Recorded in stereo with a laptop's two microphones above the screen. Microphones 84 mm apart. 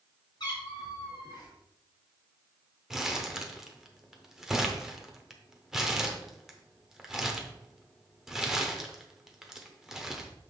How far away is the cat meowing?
About 2 m.